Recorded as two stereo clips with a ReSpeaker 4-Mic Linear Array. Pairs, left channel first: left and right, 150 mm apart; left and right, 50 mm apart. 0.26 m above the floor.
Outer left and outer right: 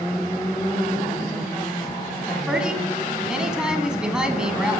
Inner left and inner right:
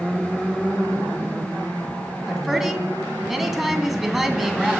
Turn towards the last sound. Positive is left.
turn(degrees=-5)  # may be behind; listen again after turning